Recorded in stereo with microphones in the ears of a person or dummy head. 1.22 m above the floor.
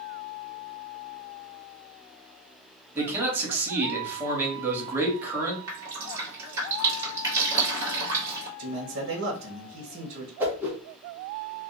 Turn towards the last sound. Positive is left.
turn(degrees=-10)  # may be behind; listen again after turning